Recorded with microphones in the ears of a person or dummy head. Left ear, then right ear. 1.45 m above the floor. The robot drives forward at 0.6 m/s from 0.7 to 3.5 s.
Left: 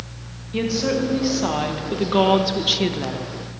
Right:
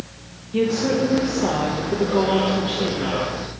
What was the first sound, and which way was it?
A woman speaking, 20° left (ahead or behind).